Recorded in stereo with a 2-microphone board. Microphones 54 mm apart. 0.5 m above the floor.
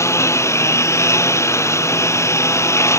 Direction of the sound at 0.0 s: 60° left (ahead or behind).